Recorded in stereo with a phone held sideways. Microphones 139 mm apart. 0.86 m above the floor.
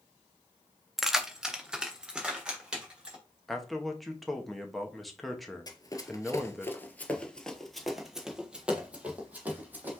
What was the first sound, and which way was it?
Keys jangling, centre (ahead or behind).